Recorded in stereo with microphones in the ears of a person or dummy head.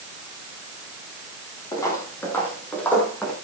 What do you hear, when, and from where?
1.7 s footsteps: 20° left (ahead or behind), 3.5 m; by 3.3 s 5° left (ahead or behind), 4 m